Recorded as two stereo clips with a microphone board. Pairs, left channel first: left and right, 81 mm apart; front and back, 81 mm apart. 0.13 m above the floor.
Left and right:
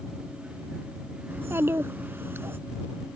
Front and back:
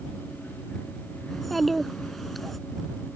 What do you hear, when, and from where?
1.3 s a child speaking: 85° right